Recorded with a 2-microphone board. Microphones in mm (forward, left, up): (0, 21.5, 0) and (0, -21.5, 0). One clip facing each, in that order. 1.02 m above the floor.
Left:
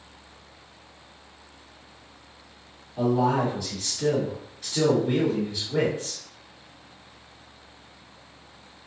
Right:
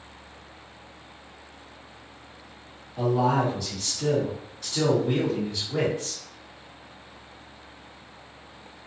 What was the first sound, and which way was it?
A man speaking, centre (ahead or behind).